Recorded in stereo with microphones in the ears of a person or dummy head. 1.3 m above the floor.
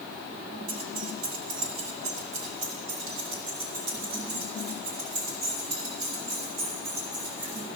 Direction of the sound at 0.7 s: 85° right.